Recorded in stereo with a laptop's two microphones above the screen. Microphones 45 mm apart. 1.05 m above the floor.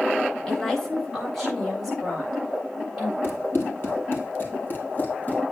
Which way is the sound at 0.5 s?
15° left (ahead or behind).